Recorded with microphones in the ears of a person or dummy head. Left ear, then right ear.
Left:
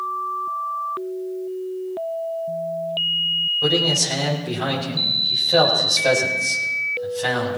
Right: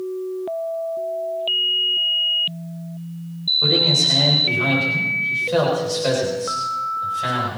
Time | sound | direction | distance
3.6 | a man speaking | 5° right (ahead or behind) | 7.5 m